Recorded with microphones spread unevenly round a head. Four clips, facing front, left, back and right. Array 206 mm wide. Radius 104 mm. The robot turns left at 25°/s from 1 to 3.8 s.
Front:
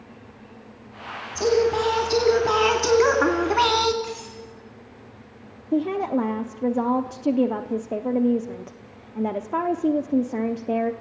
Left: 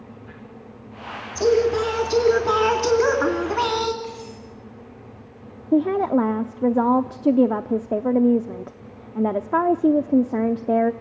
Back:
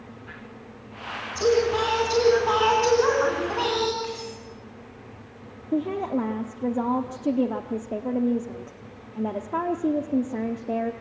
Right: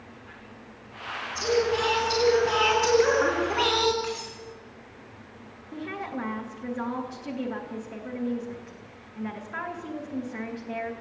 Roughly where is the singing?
Ahead left.